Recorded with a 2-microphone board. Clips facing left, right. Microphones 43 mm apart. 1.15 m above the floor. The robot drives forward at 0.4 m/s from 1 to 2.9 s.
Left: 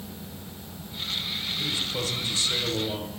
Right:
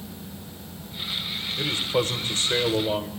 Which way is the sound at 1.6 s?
45° right (ahead or behind).